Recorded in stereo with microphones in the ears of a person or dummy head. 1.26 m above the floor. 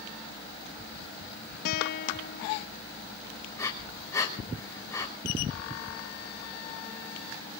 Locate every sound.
1.6 s a guitar: 55° left (ahead or behind), 0.6 m
3.6 s breathing: 15° left (ahead or behind), 3 m